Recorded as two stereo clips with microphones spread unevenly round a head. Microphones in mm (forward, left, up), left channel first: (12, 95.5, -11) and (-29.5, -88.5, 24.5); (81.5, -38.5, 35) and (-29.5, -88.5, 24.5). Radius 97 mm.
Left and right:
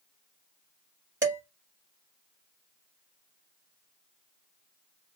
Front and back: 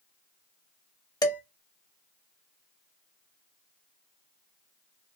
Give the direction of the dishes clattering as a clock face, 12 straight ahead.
1 o'clock.